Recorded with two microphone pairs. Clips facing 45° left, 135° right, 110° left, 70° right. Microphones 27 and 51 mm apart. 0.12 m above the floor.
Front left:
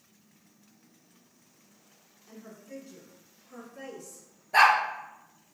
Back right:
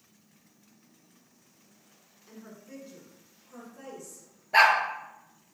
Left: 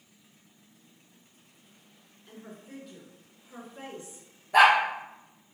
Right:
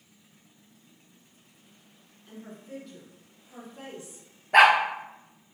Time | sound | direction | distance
2.3 | a woman speaking | 150° right | 1.2 m
4.5 | a dog barking | 70° right | 0.7 m